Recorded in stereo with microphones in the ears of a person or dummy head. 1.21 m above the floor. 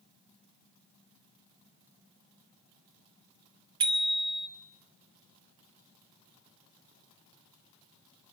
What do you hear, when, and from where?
3.8 s a bicycle bell: 30° right (ahead or behind), 2 m